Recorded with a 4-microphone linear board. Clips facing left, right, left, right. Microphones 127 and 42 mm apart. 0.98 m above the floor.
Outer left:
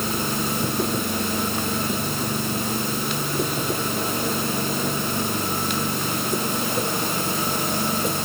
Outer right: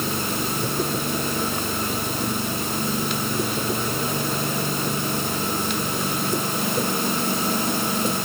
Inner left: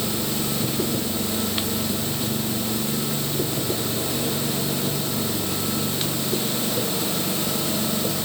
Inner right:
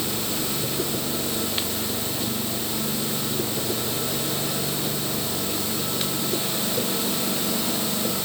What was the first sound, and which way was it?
Only background noise.